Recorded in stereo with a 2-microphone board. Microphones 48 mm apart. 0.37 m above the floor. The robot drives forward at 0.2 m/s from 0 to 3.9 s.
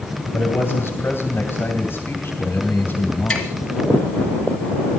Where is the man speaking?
55° left (ahead or behind), 2.5 m; by 3.5 s 50° left (ahead or behind), 2.5 m.